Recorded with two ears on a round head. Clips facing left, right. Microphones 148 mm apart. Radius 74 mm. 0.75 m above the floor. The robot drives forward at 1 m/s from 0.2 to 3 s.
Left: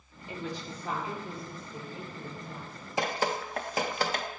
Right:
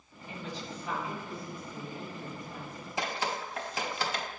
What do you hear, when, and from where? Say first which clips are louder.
0.3 s a woman speaking: left 3 dB; 50° left (ahead or behind), 1.3 m; by 2.9 s 15° left (ahead or behind), 3.5 m
3.0 s dripping: left 4 dB; 40° left (ahead or behind), 0.7 m